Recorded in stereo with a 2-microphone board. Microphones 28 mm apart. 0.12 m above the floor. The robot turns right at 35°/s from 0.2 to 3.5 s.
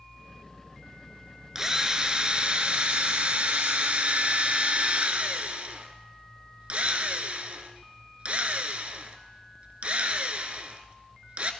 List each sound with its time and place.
1.6 s a drill: 160° right, 0.6 m; by 11.5 s 90° right, 0.6 m